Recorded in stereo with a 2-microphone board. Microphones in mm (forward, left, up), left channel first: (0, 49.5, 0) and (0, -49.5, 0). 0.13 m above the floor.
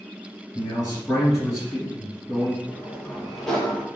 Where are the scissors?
No scissors in this recording.